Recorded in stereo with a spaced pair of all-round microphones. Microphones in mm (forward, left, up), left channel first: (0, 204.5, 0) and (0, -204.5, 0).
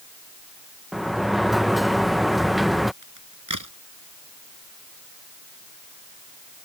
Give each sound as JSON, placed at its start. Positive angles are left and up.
{"t": 0.9, "sound": "a sliding door", "side_deg": 0}
{"t": 3.0, "sound": "a crack", "side_deg": -45}